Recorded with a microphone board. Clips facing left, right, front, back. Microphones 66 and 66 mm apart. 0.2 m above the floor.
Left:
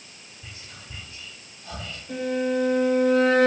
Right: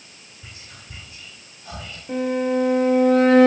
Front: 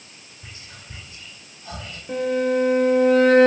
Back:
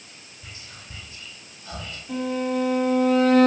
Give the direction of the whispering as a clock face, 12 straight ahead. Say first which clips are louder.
Even, front 1 dB; 1 o'clock.